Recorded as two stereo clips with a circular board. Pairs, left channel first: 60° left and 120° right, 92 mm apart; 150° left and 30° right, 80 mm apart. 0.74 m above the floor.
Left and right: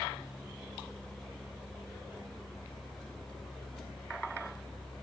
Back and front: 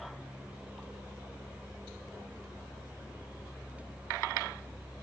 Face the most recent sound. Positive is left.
No sound to turn to.